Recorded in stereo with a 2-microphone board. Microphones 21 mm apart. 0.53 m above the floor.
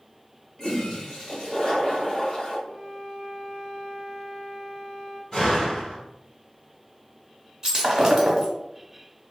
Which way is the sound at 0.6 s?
30° left (ahead or behind).